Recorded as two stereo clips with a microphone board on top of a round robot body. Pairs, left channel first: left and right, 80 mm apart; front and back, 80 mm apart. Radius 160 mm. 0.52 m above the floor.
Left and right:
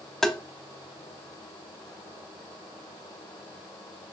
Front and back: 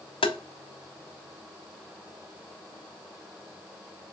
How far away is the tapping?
About 0.6 m.